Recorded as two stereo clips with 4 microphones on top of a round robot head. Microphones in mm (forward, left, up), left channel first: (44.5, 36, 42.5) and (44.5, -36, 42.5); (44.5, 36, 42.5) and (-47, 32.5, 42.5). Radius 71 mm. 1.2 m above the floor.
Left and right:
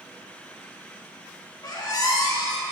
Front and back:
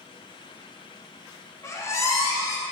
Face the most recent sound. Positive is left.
turn(degrees=60)